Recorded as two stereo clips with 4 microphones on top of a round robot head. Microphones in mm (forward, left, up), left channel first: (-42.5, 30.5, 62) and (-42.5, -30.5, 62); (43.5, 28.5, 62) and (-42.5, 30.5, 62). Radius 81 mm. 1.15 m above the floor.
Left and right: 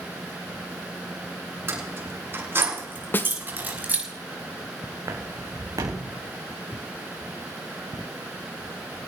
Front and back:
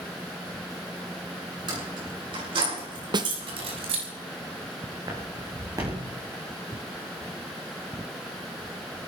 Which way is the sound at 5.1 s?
125° right.